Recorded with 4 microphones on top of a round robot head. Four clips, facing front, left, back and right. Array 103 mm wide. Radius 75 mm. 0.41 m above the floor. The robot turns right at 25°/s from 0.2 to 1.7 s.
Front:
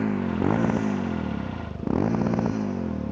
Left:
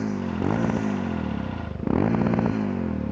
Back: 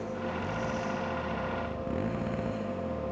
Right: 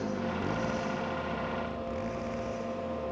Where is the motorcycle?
20° left; by 3.1 s 60° left.